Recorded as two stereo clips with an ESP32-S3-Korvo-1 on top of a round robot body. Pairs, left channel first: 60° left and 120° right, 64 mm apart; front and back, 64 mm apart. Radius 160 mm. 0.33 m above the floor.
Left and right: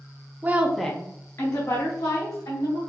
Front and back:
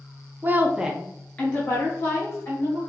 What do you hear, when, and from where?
0.4 s a woman speaking: 155° right, 0.9 m; by 2.8 s 55° left, 2.5 m